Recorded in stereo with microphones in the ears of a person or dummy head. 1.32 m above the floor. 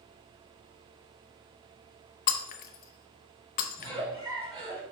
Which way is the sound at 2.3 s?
45° left (ahead or behind).